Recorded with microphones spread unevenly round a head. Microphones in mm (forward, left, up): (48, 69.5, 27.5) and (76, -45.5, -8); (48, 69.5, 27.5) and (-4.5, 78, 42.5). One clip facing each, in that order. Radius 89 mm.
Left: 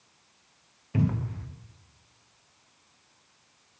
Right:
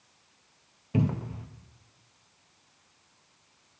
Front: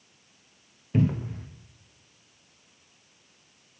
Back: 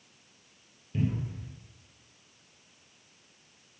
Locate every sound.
0.9 s a cupboard door: 15° right, 0.6 m